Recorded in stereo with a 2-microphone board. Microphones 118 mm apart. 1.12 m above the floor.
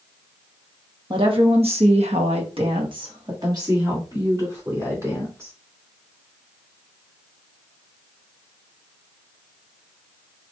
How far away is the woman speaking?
About 1.2 m.